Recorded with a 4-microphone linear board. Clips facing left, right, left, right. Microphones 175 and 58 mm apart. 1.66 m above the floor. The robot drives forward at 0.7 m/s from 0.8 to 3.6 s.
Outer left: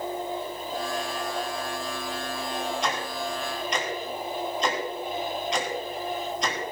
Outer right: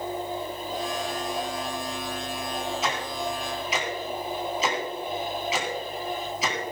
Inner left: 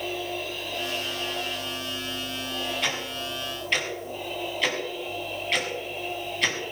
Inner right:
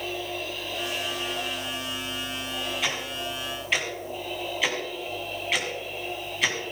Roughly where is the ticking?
Centre.